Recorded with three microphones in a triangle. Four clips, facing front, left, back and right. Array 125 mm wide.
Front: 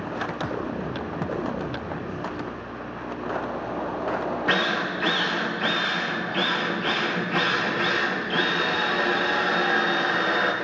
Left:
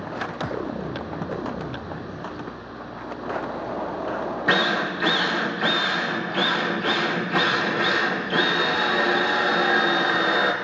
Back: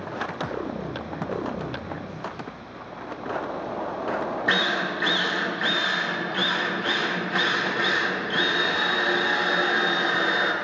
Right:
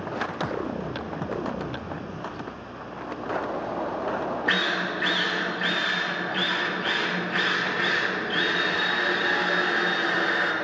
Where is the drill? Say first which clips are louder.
Left 8 dB, even; 75° left, 1.1 m.